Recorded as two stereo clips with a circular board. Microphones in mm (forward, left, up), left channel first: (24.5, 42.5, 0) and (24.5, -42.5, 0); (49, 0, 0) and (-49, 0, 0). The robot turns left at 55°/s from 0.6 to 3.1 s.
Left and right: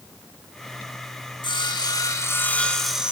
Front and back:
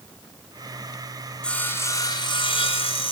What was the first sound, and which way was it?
Sawing, 80° left.